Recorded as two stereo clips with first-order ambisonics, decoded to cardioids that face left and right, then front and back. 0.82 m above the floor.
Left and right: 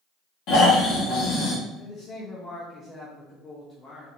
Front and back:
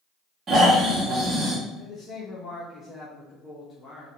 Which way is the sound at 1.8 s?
50° left.